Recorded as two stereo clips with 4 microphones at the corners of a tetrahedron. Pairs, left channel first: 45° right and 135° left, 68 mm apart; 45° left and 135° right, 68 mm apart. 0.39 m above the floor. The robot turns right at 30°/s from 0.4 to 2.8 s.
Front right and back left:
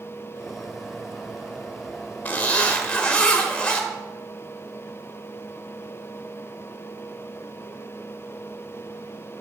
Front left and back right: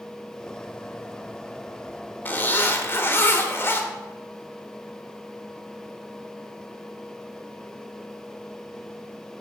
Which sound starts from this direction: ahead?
A zipper, at 2.2 s.